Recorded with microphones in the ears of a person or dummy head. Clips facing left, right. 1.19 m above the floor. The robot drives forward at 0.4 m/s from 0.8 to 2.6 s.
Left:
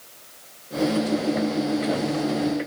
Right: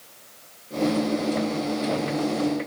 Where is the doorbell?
No doorbell in this recording.